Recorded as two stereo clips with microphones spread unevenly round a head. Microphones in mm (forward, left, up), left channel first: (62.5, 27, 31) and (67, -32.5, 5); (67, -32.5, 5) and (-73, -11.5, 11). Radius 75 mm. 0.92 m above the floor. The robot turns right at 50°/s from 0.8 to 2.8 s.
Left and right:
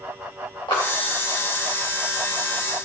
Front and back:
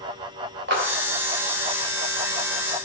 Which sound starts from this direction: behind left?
A clap, at 0.7 s.